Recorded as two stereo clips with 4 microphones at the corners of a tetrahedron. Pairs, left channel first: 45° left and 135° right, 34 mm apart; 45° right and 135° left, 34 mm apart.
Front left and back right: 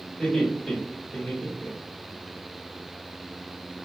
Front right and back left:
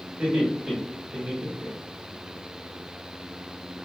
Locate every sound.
0.2 s laughter: 95° left, 2.0 m; by 2.2 s 55° left, 1.0 m